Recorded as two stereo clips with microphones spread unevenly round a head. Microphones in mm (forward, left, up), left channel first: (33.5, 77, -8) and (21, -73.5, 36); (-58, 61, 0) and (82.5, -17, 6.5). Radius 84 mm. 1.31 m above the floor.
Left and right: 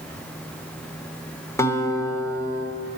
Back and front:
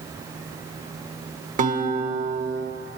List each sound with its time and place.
1.6 s a guitar: 10° left, 1.1 m